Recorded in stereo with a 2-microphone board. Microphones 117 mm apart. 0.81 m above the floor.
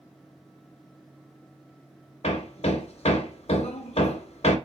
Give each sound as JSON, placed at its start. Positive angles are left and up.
{"t": 2.2, "sound": "hammering", "side_deg": 60, "distance_m": 0.9}